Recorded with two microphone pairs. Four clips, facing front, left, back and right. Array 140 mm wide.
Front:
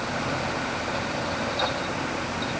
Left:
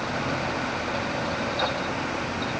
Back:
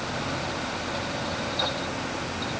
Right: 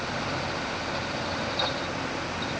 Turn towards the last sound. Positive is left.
No sound to turn to.